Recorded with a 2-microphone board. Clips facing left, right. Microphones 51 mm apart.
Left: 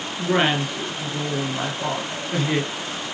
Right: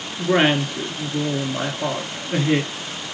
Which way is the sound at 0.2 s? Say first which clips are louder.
Right 3 dB; 10° right (ahead or behind).